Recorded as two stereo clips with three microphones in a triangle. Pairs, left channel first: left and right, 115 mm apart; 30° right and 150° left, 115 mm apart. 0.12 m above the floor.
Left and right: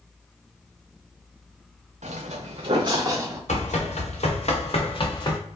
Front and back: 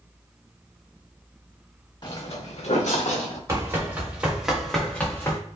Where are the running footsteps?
85° left, 1.3 m; by 5.4 s 30° left, 0.9 m.